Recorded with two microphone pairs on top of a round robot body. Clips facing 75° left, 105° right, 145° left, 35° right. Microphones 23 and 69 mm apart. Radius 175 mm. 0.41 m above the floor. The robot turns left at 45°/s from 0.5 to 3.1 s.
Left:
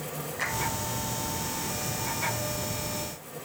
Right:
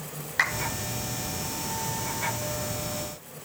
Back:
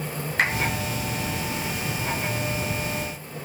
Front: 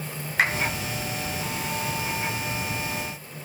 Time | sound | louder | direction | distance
0.4 | a clap | right 7 dB, front 1 dB | 125° right | 9 m